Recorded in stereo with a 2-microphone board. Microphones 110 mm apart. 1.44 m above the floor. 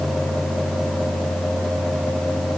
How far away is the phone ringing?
No phone ringing in this recording.